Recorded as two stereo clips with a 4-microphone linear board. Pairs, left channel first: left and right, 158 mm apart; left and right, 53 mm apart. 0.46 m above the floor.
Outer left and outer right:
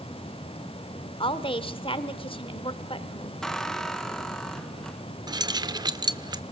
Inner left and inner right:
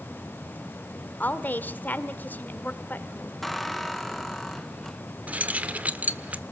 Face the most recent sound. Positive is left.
turn(degrees=-25)  # may be behind; listen again after turning